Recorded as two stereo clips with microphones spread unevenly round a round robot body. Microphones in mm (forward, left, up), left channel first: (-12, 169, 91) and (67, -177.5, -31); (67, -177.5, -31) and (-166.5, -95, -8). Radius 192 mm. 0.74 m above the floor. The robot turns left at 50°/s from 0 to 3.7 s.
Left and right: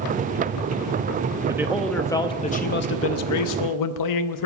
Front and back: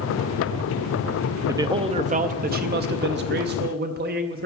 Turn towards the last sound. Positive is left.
turn(degrees=130)